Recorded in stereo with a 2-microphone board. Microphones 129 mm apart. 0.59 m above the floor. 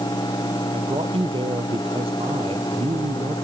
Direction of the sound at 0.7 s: 45° right (ahead or behind).